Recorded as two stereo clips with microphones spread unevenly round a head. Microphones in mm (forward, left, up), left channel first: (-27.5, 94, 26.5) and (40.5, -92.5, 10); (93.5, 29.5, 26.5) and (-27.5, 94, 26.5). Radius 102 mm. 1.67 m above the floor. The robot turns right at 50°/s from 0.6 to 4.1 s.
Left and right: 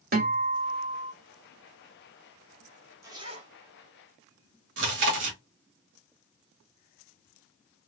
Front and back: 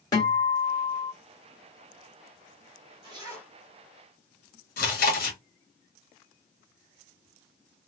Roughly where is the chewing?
Ahead right.